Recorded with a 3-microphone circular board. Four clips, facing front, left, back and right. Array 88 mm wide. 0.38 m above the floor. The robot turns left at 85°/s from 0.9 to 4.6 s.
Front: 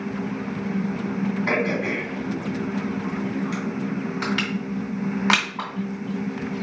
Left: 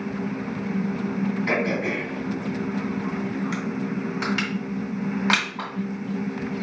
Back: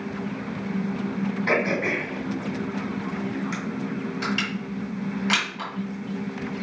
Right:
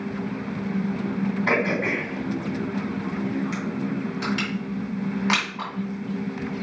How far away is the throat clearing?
About 2.5 m.